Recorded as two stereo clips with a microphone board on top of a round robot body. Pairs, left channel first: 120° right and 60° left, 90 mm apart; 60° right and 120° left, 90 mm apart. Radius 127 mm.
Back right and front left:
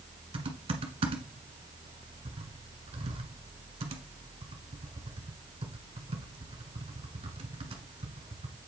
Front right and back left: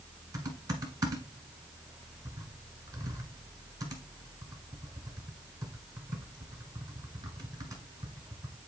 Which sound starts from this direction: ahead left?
Typing on a keyboard, at 0.3 s.